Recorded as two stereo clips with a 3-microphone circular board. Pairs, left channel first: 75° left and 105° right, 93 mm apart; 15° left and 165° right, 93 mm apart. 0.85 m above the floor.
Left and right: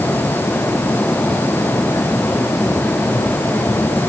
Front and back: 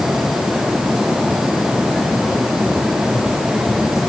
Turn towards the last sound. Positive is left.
No sound to turn to.